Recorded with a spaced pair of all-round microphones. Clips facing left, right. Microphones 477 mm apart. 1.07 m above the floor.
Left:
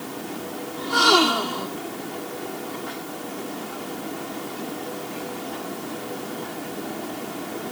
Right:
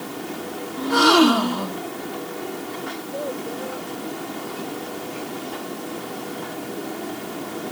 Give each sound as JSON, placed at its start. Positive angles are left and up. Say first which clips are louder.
{"t": 0.8, "sound": "a gasp", "louder": "right 6 dB", "side_deg": -70}
{"t": 2.9, "sound": "a child speaking", "louder": "right 4 dB", "side_deg": -85}